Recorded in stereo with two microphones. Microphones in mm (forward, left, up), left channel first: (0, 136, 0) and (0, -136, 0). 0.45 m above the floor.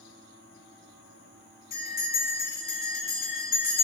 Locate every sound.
1.7 s a bell: 80° right, 3.5 m